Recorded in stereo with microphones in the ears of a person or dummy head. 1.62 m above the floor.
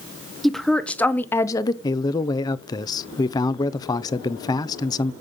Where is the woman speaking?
Centre (ahead or behind), 1.5 m; by 1.7 s 20° left (ahead or behind), 0.9 m.